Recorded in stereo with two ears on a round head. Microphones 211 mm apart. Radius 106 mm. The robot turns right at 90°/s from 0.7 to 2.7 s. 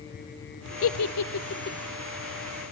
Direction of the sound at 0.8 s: 55° left (ahead or behind).